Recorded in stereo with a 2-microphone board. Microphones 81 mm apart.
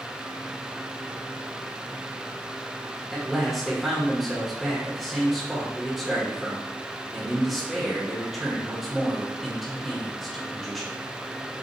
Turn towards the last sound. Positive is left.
turn(degrees=0)  # may be behind; listen again after turning